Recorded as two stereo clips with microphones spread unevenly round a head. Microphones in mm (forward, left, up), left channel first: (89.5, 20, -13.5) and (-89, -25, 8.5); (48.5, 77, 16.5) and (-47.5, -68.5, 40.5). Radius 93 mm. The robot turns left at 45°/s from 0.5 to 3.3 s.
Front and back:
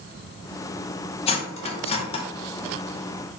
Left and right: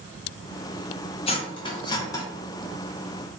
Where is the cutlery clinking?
30° left, 0.5 m; by 2.2 s 10° right, 0.5 m.